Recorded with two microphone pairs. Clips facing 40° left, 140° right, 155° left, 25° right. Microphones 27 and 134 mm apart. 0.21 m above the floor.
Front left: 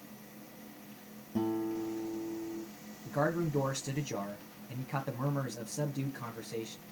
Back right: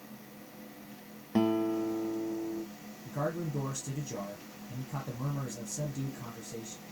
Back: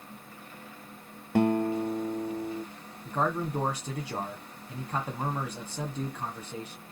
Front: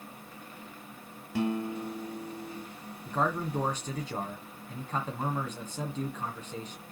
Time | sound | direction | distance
1.4 | a guitar | 175° right | 0.8 m
3.0 | a man speaking | 80° left | 1.6 m